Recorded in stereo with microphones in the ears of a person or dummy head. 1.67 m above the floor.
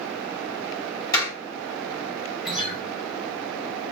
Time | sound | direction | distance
1.1 | a door slam | 20° left (ahead or behind) | 1.3 m
2.5 | a guitar | 5° right (ahead or behind) | 0.8 m